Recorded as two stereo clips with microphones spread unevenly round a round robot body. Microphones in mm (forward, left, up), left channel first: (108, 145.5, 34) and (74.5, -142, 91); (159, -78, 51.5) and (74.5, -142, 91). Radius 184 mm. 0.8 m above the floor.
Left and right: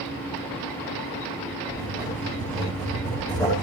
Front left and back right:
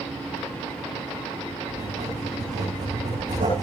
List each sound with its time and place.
1.7 s writing: 165° left, 9 m